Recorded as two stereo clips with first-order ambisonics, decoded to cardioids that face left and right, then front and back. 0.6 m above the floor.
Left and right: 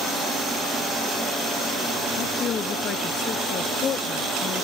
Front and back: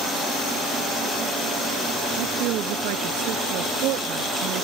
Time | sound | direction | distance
2.2 | a woman speaking | 150° left | ?